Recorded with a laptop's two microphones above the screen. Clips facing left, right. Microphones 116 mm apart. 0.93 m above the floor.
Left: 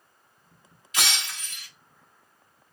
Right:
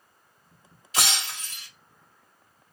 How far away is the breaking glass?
About 1.3 m.